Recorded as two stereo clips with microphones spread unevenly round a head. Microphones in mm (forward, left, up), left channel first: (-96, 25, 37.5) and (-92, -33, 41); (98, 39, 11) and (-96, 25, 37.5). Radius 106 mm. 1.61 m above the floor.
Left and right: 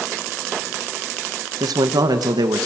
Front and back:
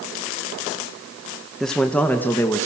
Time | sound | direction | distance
1.6 | a man speaking | 85° right | 1.5 m